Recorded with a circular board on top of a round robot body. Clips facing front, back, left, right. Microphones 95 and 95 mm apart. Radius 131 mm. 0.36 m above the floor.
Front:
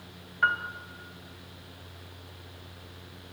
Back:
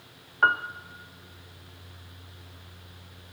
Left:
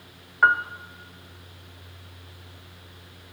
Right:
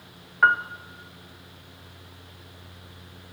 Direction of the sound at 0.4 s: 175° left.